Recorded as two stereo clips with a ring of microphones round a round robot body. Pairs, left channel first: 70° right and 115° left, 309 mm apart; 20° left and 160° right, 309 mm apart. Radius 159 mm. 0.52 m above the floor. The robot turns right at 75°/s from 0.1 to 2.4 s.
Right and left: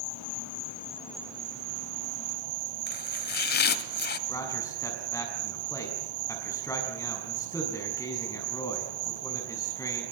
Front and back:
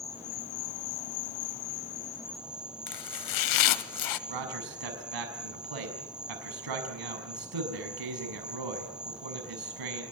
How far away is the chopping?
About 1.0 m.